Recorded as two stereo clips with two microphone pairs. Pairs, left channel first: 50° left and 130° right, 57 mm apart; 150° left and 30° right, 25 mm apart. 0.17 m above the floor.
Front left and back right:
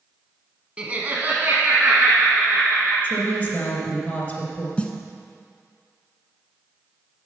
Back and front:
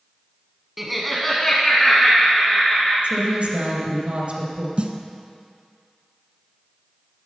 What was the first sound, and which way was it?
Laughter, 100° right.